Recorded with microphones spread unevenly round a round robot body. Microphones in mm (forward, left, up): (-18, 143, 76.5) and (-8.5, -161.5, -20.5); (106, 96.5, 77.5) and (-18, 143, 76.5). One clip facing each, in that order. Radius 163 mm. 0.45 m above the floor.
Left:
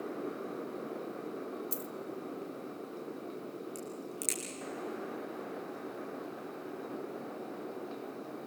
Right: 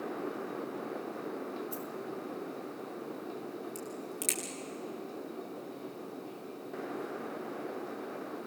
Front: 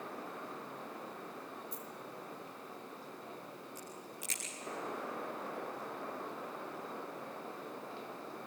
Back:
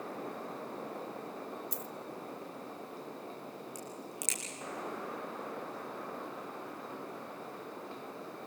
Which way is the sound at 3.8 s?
Straight behind.